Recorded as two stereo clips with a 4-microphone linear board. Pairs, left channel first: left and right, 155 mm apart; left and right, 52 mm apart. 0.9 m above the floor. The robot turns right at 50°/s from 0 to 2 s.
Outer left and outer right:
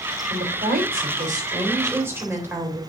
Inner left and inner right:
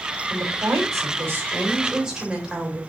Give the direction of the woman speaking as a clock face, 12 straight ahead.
3 o'clock.